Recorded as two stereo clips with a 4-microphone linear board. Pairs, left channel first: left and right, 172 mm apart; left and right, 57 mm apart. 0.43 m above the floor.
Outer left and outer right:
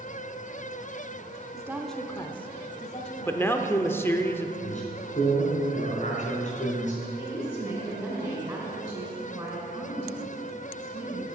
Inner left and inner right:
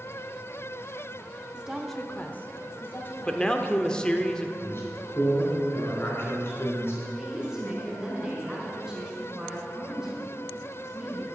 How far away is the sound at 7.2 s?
About 4 m.